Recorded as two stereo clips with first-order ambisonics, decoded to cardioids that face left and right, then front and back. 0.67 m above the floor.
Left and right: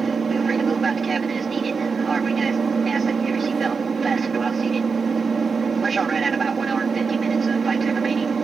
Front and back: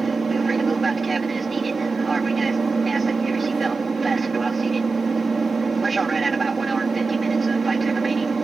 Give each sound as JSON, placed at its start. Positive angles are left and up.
{"t": 0.0, "sound": "an aircraft", "azimuth_deg": -125}